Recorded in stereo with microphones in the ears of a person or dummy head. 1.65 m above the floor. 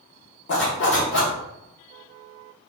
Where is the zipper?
50° left (ahead or behind), 1.0 m.